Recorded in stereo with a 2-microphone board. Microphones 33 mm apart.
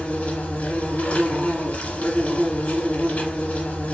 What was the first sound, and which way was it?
An insect, 45° left (ahead or behind).